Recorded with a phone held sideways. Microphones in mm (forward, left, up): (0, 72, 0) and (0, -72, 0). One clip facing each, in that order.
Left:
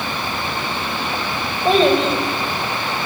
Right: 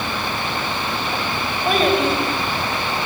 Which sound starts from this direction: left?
A child speaking, at 1.6 s.